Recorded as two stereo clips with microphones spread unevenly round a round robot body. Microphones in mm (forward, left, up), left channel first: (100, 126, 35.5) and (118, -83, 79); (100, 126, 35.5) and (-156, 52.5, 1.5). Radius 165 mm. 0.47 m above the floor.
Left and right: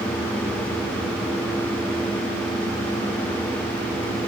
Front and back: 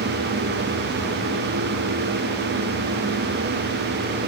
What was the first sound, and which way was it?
Only background noise.